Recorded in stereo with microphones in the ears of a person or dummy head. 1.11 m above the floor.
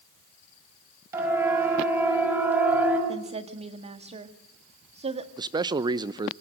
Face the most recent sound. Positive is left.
turn(degrees=-25)  # may be behind; listen again after turning